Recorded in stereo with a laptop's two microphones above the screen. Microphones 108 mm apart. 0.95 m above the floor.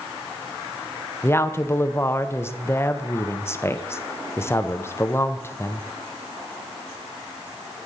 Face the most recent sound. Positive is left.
turn(degrees=25)  # may be behind; listen again after turning